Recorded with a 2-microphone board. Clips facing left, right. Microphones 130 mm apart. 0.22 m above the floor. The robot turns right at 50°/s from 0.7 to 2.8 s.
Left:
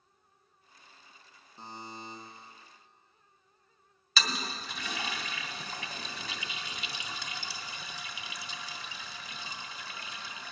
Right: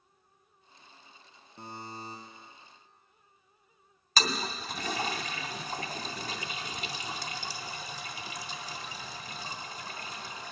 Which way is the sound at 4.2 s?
40° right (ahead or behind).